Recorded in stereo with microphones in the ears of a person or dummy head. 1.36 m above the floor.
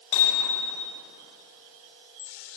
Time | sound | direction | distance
0.1 | hammering | 85° left | 7.5 m